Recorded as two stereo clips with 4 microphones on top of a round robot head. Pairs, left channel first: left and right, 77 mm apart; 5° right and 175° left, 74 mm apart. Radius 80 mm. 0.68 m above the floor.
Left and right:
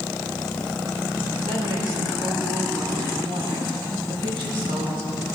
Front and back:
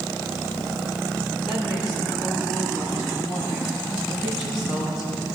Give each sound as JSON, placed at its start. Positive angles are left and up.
{"t": 1.4, "sound": "a woman speaking", "azimuth_deg": -100, "distance_m": 6.0}